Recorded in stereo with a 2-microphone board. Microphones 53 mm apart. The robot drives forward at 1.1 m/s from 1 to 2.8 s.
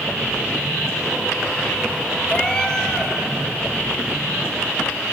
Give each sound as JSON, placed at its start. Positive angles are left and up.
{"t": 2.3, "sound": "a cat meowing", "side_deg": 20, "distance_m": 0.6}